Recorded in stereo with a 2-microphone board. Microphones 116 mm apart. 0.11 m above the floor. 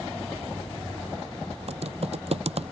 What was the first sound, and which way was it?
Typing on a keyboard, 65° right (ahead or behind).